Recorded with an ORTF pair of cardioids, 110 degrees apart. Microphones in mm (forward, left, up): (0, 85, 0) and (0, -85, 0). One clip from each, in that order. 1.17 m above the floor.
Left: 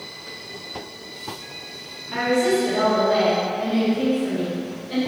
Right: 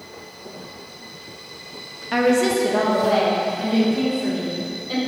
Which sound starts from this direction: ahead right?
A woman speaking, at 2.1 s.